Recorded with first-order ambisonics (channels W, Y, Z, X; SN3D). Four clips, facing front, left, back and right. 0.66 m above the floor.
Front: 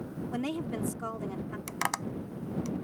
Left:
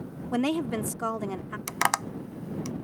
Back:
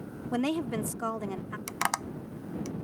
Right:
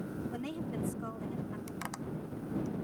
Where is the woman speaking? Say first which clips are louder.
Left 11 dB, back 5 dB; 110° left.